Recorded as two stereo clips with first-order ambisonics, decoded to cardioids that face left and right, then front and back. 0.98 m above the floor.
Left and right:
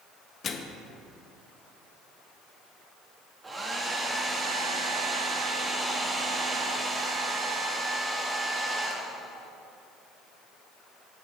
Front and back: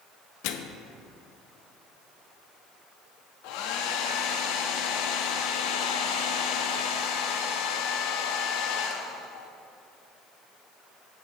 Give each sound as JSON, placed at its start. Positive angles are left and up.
{"t": 0.4, "sound": "a microwave", "azimuth_deg": 25, "distance_m": 0.7}
{"t": 3.4, "sound": "a hair dryer", "azimuth_deg": -15, "distance_m": 0.9}